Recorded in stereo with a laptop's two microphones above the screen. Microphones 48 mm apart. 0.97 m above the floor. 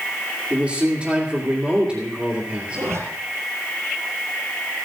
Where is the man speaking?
20° right (ahead or behind), 2.5 m.